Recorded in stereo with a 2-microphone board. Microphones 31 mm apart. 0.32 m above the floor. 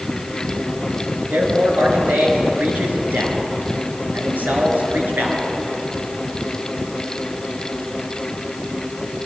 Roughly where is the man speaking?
Right.